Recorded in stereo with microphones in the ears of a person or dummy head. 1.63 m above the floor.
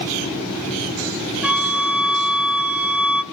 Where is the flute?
10° right (ahead or behind), 0.7 m.